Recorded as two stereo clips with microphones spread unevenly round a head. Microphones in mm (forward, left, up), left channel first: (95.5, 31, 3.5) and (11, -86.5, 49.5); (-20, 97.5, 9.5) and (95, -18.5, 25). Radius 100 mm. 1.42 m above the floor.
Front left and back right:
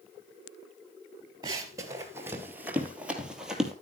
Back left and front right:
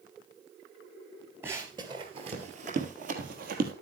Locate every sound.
1.4 s running footsteps: 110° right, 1.8 m; by 3.7 s 50° right, 2.5 m